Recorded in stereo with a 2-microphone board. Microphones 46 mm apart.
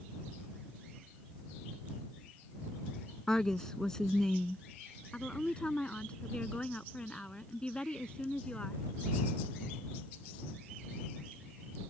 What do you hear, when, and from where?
3.3 s a woman speaking: 15° left (ahead or behind)
5.1 s a woman speaking: 25° left (ahead or behind)